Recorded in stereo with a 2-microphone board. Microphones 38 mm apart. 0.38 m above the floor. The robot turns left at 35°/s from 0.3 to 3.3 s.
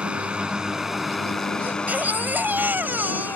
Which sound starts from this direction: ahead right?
A baby crying, at 1.6 s.